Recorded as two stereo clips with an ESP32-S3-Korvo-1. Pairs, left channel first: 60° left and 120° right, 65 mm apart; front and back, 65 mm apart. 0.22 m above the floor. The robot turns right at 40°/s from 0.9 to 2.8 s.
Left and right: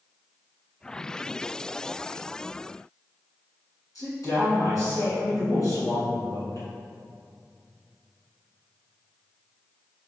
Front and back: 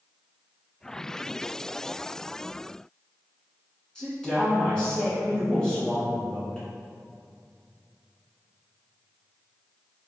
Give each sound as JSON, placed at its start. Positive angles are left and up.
{"t": 4.0, "sound": "a woman speaking", "azimuth_deg": 75, "distance_m": 2.0}